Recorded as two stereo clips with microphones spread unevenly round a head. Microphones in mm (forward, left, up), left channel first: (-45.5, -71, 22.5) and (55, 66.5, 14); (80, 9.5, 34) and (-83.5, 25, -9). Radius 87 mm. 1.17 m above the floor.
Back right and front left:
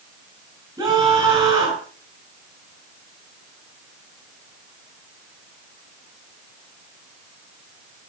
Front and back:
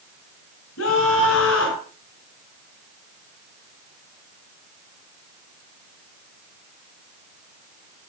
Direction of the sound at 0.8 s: 15° right.